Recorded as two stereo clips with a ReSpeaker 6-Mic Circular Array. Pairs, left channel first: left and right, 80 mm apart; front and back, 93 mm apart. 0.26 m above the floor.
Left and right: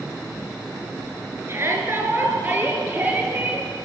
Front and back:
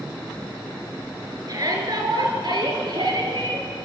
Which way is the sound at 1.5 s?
140° right.